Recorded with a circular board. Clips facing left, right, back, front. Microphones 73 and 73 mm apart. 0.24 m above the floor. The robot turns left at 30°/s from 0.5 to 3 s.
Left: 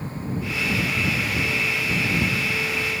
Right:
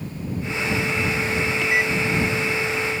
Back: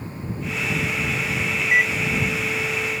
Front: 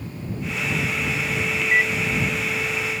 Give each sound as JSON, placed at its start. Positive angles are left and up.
{"t": 1.6, "sound": "a microwave", "azimuth_deg": -95}